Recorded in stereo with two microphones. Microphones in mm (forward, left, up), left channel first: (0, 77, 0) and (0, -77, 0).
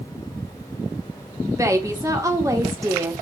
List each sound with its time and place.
1.5 s a woman speaking: 20° right (ahead or behind), 0.7 m